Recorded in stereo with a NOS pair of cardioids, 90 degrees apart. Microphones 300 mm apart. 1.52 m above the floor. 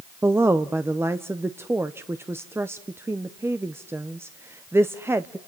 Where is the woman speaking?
10° right, 0.8 m.